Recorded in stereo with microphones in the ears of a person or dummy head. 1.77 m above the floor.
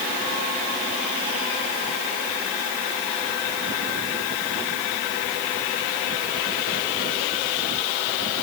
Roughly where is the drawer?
No drawer in this recording.